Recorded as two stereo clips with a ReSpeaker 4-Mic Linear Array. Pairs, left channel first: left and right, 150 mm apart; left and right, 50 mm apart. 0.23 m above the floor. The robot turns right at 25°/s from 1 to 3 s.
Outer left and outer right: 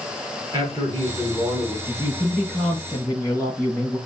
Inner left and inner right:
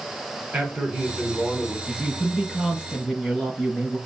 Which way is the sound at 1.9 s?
5° right (ahead or behind).